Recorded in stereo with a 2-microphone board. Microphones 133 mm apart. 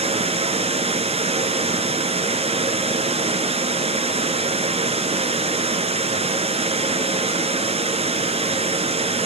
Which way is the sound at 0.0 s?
50° right (ahead or behind).